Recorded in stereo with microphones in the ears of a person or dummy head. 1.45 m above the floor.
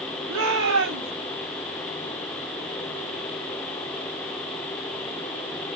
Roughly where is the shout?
Right.